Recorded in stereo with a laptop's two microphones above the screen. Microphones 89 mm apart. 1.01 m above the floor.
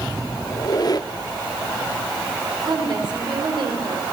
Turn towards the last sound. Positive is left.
turn(degrees=-55)  # may be behind; listen again after turning